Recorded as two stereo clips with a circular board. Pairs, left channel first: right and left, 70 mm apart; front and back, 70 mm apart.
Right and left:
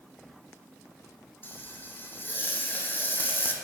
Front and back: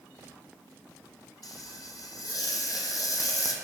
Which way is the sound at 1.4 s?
30° right.